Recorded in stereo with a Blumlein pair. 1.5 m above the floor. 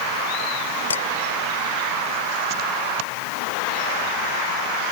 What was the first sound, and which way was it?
Dishes clattering, 70° left.